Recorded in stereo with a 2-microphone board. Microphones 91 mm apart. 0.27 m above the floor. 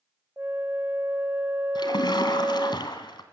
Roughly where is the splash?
Left.